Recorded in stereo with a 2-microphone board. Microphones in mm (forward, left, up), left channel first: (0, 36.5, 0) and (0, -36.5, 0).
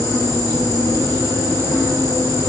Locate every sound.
0.0 s an insect: 40° left (ahead or behind), 4.5 m